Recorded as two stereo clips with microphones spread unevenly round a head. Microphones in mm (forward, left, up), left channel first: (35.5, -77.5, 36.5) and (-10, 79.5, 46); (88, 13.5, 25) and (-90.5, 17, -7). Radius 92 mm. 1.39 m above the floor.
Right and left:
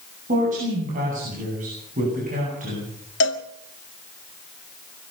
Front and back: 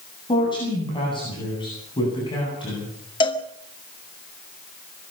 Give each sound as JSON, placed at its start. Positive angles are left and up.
{"t": 0.3, "sound": "a woman speaking", "azimuth_deg": 65, "distance_m": 10.0}
{"t": 3.2, "sound": "a cowbell", "azimuth_deg": -65, "distance_m": 1.8}